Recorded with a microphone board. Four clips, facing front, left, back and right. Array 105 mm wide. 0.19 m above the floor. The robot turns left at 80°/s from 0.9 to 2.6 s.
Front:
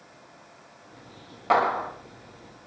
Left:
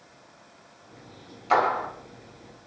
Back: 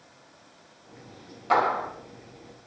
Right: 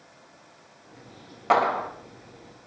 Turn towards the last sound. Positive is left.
turn(degrees=-150)